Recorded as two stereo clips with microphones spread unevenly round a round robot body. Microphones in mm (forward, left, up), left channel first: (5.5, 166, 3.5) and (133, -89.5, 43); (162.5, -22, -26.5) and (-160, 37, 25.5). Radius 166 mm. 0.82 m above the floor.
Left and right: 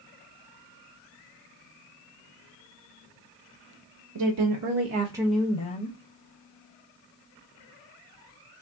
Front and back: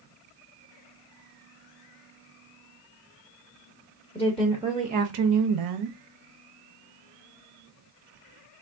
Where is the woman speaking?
85° right, 0.7 m; by 6.0 s 160° left, 0.7 m.